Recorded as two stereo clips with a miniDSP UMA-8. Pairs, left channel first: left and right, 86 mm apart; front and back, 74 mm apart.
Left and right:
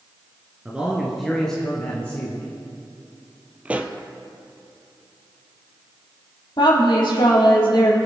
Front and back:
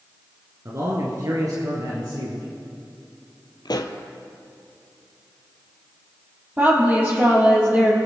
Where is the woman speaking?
115° left, 4.5 m.